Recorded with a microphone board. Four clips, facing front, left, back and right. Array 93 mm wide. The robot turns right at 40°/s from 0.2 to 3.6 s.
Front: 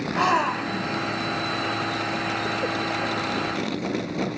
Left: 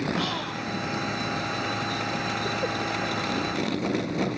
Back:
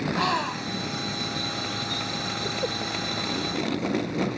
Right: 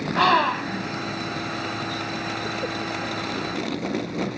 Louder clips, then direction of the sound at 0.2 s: Right 11 dB, front 8 dB; 75° right.